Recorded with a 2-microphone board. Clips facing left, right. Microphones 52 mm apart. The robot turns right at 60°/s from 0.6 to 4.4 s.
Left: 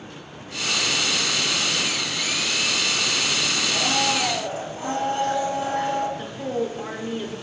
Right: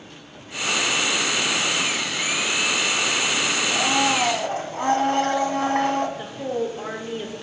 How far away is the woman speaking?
About 0.8 m.